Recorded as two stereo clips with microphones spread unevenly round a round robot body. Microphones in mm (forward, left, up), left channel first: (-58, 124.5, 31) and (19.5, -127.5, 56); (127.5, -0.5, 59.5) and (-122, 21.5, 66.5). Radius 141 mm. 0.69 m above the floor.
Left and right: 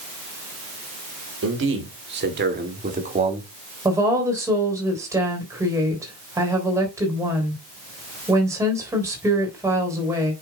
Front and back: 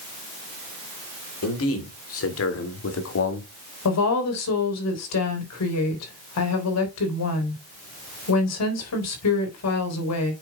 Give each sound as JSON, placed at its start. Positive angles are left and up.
{"t": 1.4, "sound": "a man speaking", "azimuth_deg": -30, "distance_m": 2.5}
{"t": 3.9, "sound": "a woman speaking", "azimuth_deg": 10, "distance_m": 3.5}